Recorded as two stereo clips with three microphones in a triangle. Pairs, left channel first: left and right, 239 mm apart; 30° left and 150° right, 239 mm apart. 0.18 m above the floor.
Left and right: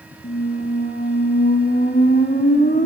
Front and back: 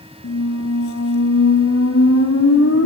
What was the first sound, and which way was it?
A squeak, 40° left.